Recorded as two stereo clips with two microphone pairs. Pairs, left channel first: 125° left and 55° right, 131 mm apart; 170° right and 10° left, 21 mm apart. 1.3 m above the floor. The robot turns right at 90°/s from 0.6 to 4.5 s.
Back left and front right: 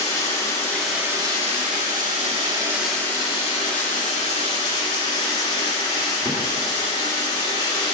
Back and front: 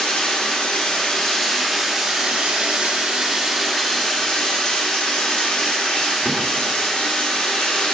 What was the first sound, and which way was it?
Running water, 170° right.